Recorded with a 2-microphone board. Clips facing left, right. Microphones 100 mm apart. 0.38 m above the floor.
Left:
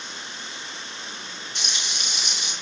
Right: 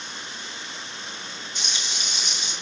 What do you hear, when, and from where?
1.6 s frying: 70° left (ahead or behind), 7 m